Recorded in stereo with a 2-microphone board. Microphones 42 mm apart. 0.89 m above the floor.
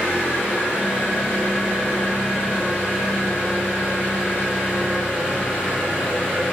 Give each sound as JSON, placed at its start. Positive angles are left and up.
{"t": 0.0, "sound": "an engine running", "side_deg": 50, "distance_m": 1.5}